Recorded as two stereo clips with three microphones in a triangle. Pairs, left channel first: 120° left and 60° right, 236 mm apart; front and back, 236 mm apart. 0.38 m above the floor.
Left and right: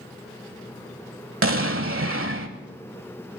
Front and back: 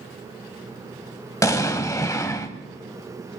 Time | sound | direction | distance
1.4 | an explosion | 75° right | 1.0 m